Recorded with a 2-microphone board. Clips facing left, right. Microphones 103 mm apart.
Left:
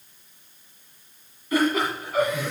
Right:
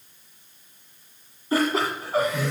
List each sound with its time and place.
1.5 s laughter: 35° right (ahead or behind), 1.8 m